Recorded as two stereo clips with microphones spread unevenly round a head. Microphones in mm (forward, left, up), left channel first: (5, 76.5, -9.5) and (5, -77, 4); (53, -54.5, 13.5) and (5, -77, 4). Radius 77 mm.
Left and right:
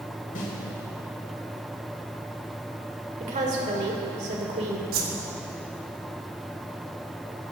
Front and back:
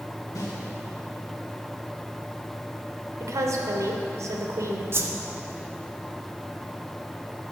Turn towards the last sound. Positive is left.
turn(degrees=-120)